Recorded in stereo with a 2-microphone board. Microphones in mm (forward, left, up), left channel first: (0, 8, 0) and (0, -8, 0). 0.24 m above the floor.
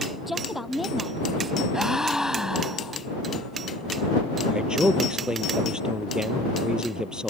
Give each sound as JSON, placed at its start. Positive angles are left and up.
{"t": 0.3, "sound": "a woman speaking", "side_deg": -5}
{"t": 1.7, "sound": "a gasp", "side_deg": -40}
{"t": 4.5, "sound": "a man speaking", "side_deg": -65}